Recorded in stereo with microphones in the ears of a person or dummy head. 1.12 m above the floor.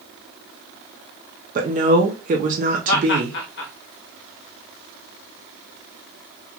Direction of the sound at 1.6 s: 35° right (ahead or behind).